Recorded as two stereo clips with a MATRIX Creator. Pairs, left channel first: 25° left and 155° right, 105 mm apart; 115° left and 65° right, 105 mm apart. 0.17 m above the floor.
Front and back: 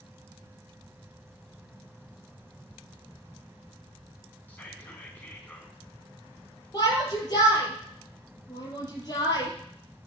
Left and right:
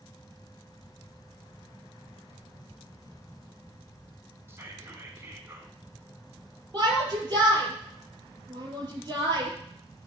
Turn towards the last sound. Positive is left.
turn(degrees=-20)